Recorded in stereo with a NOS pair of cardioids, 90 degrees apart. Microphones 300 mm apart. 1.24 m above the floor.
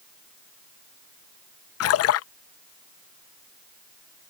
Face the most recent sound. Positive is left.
turn(degrees=55)